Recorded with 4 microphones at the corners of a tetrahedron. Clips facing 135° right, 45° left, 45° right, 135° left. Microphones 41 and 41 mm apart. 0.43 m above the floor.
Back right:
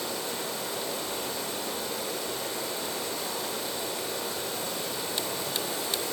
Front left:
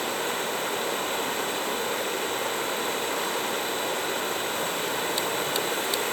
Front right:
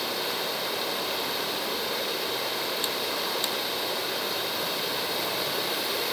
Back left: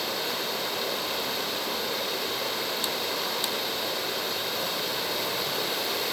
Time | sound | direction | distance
0.0 | running water | 40° left | 1.2 m